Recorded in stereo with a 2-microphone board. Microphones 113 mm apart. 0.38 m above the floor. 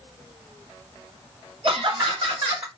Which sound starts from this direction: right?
Laughter, at 1.6 s.